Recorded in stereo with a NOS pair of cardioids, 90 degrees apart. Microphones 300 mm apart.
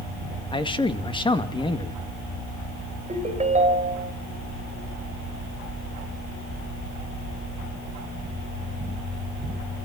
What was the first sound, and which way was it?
A man speaking, 15° left.